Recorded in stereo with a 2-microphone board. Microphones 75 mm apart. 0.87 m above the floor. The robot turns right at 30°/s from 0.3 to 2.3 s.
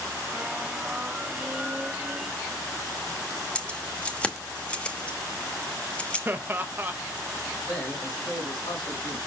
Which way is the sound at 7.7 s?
80° left.